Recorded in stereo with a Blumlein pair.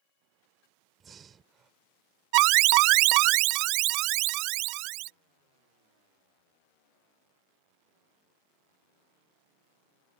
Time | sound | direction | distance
1.0 | breathing | 20° right | ?
2.3 | an alarm | 40° right | ?